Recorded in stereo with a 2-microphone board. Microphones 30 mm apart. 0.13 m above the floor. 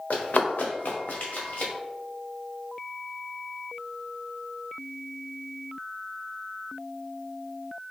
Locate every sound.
0.1 s running footsteps: 85° left, 1.1 m; by 1.7 s 75° left (ahead or behind), 2.0 m